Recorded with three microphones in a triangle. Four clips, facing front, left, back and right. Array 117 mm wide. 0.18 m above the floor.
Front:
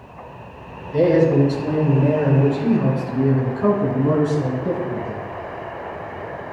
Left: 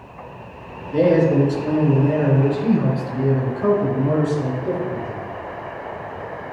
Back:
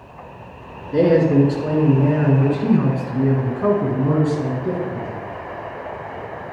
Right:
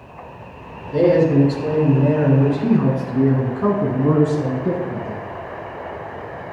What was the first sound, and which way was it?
A man speaking, 170° right.